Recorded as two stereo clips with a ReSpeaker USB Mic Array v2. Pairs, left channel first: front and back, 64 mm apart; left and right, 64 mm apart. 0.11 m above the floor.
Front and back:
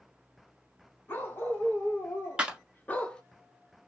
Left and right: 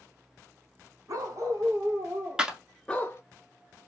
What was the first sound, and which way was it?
A dog barking, 65° right.